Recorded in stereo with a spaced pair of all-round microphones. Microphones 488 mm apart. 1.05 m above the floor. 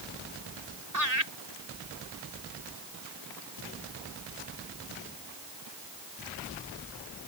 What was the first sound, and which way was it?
Laughter, 35° right (ahead or behind).